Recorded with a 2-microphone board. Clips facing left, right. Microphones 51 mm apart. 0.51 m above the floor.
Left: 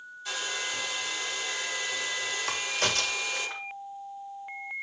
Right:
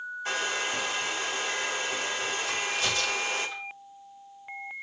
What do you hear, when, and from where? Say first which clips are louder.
0.2 s a hair dryer: right 3 dB; 40° right (ahead or behind), 1.1 m
2.5 s a crack: left 2 dB; 65° left (ahead or behind), 1.4 m